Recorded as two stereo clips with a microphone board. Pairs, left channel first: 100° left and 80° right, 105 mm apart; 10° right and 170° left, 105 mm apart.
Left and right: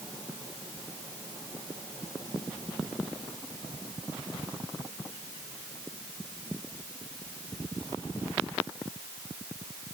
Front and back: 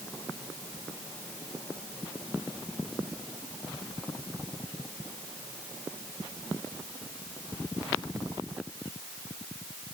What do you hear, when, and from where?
Only background noise.